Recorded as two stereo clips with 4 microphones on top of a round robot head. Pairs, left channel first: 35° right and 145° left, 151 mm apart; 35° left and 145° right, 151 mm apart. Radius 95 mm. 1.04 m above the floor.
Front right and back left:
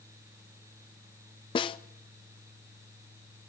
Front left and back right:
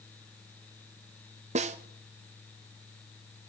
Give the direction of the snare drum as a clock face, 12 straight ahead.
3 o'clock.